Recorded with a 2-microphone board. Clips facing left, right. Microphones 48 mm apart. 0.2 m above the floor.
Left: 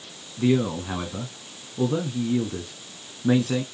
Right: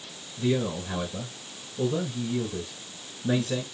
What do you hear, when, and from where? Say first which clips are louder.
0.4 s a man speaking: left 5 dB; 50° left (ahead or behind), 1.6 m